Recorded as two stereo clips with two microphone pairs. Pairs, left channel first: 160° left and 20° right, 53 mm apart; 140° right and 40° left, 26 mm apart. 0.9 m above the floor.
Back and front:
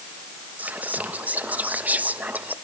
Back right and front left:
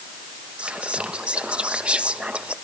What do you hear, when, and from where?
0.6 s whispering: 20° left, 1.1 m